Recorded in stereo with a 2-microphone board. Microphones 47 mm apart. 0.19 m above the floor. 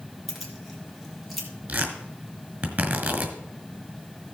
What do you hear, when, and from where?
0.3 s keys jangling: 5° left (ahead or behind), 2 m; by 1.5 s centre (ahead or behind), 3 m
1.7 s tearing paper: 40° right (ahead or behind), 1.7 m